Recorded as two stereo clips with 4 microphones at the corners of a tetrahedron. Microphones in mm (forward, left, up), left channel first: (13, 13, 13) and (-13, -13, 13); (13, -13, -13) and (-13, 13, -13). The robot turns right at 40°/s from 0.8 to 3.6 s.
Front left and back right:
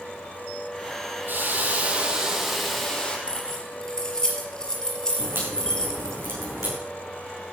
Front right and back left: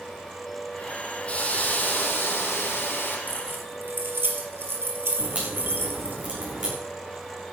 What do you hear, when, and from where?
1.3 s a hiss: 100° right, 3.5 m; by 3.2 s 25° right, 3.5 m
3.3 s keys jangling: 105° left, 4 m; by 6.2 s 115° left, 4 m
5.2 s a crack: 170° right, 8 m